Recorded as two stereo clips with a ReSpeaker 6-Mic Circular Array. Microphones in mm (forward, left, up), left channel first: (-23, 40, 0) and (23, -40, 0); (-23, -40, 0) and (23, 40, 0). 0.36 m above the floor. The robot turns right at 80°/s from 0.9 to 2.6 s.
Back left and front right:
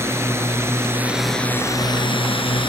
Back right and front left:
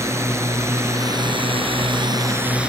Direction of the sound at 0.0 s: Straight ahead.